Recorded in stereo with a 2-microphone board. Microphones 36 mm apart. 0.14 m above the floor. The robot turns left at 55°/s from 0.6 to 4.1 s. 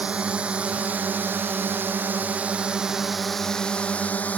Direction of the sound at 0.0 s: 35° right.